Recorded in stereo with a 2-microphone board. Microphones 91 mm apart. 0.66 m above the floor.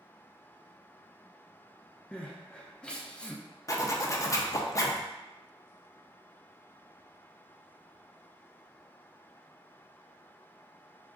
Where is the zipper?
35° left (ahead or behind), 0.5 m.